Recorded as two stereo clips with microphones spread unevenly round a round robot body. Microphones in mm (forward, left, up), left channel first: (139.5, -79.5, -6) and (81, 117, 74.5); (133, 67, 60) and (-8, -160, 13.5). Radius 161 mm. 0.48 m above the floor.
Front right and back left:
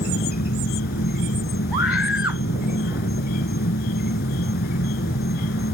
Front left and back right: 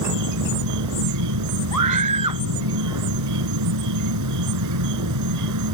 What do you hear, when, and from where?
0.0 s an insect: 120° right
1.7 s a scream: 125° right